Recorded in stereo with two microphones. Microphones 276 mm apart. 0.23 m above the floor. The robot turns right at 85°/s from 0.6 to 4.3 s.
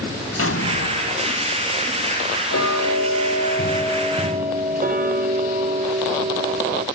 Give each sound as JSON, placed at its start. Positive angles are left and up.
{"t": 0.4, "sound": "an explosion", "azimuth_deg": 65, "distance_m": 0.7}
{"t": 2.5, "sound": "ticking", "azimuth_deg": 55, "distance_m": 1.4}